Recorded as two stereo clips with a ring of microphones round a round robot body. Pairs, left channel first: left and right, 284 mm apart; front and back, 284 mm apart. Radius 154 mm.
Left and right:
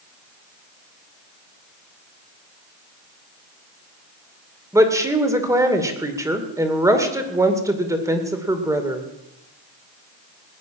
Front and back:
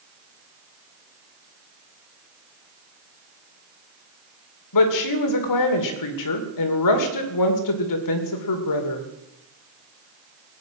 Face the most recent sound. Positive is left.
turn(degrees=-10)